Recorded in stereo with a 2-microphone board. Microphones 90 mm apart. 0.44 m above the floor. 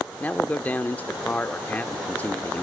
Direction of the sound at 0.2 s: 20° left (ahead or behind).